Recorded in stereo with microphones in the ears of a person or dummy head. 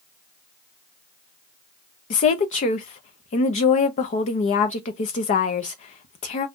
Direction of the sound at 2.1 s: 40° left (ahead or behind).